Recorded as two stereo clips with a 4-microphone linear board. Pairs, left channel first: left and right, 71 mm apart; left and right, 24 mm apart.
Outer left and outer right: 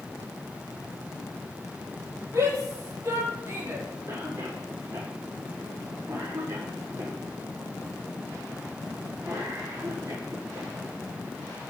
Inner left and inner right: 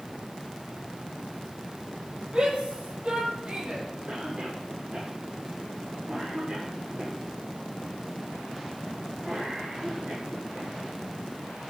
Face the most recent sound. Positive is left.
turn(degrees=-45)  # may be behind; listen again after turning